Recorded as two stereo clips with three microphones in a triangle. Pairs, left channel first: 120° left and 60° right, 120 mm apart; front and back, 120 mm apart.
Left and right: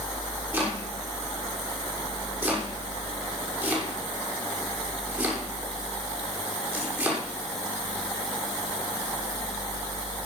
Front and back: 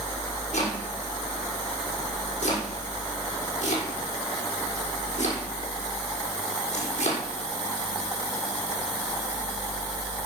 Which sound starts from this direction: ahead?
Chopping, at 0.5 s.